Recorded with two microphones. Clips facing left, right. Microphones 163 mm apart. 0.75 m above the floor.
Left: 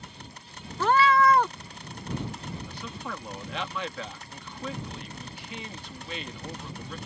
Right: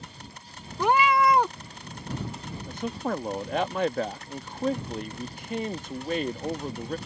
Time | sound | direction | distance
0.8 | a cat meowing | 15° right (ahead or behind) | ?
2.7 | a man speaking | 45° right (ahead or behind) | ?